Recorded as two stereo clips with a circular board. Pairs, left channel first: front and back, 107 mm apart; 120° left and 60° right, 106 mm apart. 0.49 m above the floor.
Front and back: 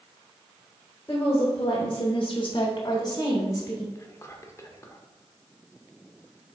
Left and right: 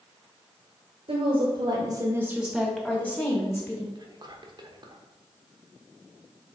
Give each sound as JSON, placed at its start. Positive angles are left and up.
{"t": 1.1, "sound": "a woman speaking", "azimuth_deg": -60, "distance_m": 1.4}
{"t": 4.0, "sound": "whispering", "azimuth_deg": -45, "distance_m": 1.0}